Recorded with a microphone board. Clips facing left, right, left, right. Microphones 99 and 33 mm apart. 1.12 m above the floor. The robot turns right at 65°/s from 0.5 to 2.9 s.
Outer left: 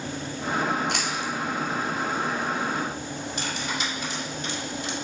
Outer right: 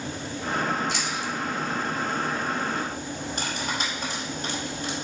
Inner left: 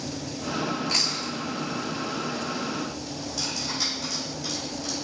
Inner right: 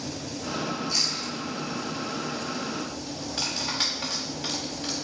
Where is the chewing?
65° left (ahead or behind), 1.1 m; by 1.3 s 55° left (ahead or behind), 1.1 m.